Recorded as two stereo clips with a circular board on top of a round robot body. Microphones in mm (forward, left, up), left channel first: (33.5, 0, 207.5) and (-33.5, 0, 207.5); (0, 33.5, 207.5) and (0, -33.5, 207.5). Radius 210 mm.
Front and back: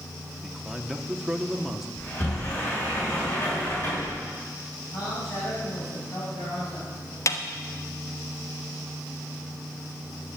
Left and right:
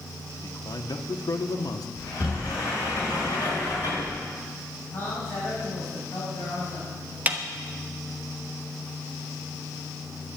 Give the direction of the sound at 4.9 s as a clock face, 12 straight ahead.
11 o'clock.